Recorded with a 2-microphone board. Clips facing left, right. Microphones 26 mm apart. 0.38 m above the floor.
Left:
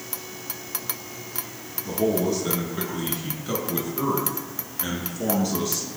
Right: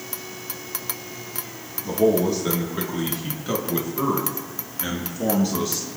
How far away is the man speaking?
About 6 m.